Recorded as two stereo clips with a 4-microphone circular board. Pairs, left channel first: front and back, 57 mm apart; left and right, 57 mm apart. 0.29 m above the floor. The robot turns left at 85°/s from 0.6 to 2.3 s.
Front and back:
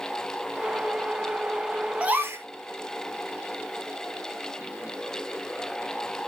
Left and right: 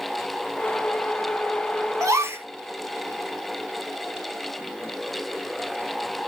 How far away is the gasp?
About 0.6 m.